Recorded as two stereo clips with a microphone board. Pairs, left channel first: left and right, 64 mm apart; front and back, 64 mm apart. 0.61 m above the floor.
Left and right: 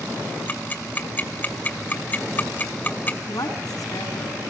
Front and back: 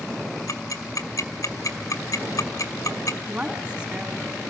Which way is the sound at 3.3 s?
105° left.